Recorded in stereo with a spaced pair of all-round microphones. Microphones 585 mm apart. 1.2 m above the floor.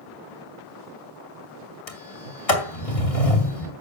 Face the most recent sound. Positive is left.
turn(degrees=70)  # may be behind; listen again after turning